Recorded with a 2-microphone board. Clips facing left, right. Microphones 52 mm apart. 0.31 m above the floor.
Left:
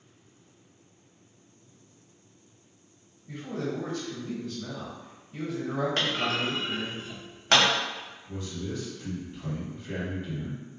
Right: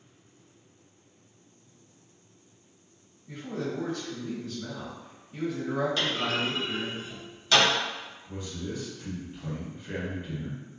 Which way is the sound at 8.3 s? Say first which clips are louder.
Left 1 dB; 10° right (ahead or behind).